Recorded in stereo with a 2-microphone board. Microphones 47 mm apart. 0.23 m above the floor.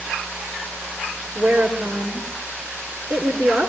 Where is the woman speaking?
30° right (ahead or behind), 3.5 m.